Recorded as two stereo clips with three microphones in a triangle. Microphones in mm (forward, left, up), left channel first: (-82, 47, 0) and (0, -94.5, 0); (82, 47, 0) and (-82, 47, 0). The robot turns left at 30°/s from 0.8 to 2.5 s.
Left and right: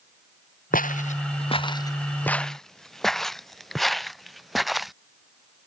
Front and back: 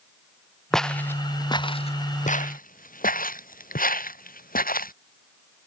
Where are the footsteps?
85° left; by 4.9 s 30° left.